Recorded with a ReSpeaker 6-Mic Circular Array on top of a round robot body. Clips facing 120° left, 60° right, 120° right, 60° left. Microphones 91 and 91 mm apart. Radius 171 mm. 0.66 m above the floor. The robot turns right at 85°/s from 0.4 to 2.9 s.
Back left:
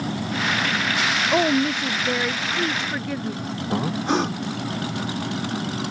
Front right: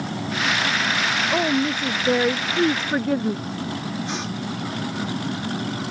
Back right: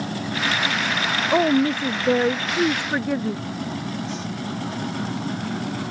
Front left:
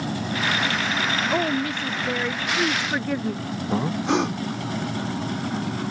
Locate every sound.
1.3 s a woman speaking: straight behind; by 3.4 s 45° right
3.7 s breathing: 75° left